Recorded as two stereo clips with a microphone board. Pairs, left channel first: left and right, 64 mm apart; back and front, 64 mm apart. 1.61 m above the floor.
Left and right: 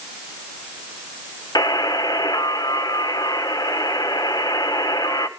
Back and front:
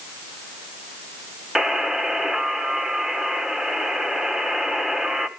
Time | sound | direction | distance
1.6 | a buzzer | 80° left | 1.7 m